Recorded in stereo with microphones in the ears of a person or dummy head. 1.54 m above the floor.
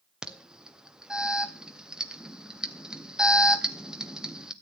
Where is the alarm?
Centre (ahead or behind), 0.8 m.